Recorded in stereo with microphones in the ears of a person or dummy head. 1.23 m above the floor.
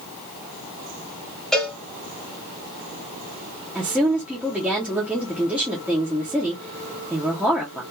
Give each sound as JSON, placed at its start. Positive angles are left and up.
{"t": 1.5, "sound": "a cowbell", "side_deg": 0, "distance_m": 1.2}
{"t": 3.8, "sound": "a woman speaking", "side_deg": -5, "distance_m": 0.7}